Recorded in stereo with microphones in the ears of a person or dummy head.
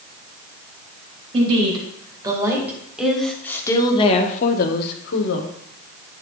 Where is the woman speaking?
25° right (ahead or behind), 2.5 m; by 5.5 s 75° left (ahead or behind), 1.6 m.